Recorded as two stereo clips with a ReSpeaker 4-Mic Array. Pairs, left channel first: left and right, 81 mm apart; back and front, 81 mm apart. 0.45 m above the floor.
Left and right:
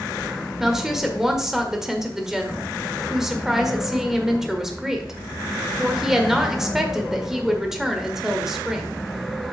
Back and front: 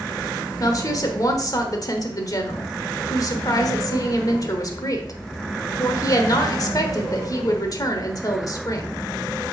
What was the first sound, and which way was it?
A woman speaking, 175° right.